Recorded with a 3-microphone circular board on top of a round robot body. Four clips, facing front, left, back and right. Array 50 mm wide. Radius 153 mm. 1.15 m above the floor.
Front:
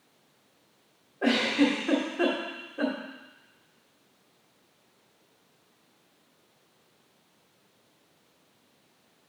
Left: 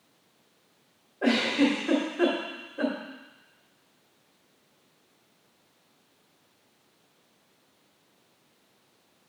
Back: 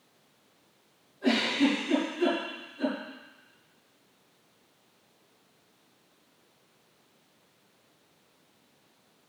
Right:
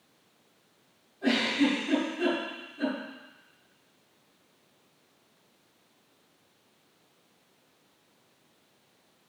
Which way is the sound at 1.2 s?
45° left.